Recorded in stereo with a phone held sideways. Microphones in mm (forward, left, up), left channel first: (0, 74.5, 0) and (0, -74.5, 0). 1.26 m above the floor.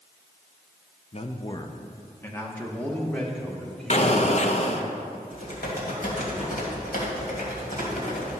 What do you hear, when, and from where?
1.1 s a man speaking: 40° left (ahead or behind), 0.6 m; by 4.9 s centre (ahead or behind), 2.5 m
3.9 s an explosion: 45° left (ahead or behind), 0.7 m
5.3 s typing on a keyboard: 70° left (ahead or behind), 2.5 m